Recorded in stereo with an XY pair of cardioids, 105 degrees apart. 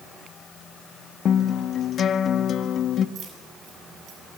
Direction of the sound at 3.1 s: 55° right.